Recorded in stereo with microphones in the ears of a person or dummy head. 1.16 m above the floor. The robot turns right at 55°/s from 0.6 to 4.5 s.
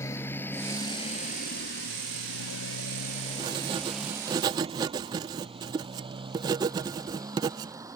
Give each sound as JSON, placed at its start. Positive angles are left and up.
{"t": 0.0, "sound": "a motorcycle", "side_deg": 15}
{"t": 3.4, "sound": "writing", "side_deg": -25}